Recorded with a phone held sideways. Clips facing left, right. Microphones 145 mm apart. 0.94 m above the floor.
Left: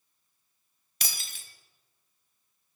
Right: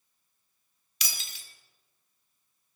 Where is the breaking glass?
50° left (ahead or behind), 1.5 m.